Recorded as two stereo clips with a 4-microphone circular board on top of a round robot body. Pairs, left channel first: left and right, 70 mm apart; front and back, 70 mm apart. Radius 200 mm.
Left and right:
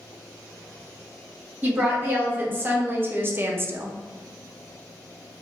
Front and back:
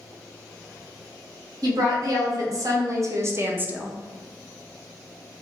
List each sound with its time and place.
1.6 s a woman speaking: 155° right, 1.5 m; by 3.9 s 110° right, 0.6 m